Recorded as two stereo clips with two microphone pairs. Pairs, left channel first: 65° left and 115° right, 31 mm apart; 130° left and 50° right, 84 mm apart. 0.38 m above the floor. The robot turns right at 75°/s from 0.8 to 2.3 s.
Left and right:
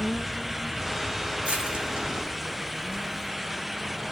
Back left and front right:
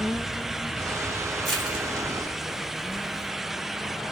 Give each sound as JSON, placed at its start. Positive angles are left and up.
{"t": 1.4, "sound": "crushing", "azimuth_deg": -145, "distance_m": 2.0}